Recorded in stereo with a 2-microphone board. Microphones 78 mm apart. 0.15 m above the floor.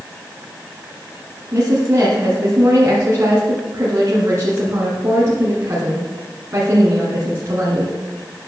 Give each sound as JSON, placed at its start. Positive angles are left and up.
{"t": 1.5, "sound": "a woman speaking", "side_deg": -40, "distance_m": 1.9}